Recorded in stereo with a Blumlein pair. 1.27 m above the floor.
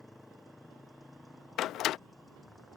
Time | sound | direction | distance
0.0 | a motorcycle | 5° left | ?
1.6 | a door slam | 35° left | ?